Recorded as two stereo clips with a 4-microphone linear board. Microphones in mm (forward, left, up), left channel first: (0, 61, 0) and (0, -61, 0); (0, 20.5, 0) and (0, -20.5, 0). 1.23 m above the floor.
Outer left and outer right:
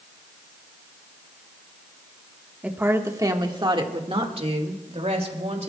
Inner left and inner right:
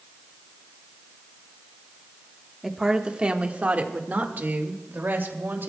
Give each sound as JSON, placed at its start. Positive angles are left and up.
{"t": 2.6, "sound": "a woman speaking", "side_deg": -10, "distance_m": 1.4}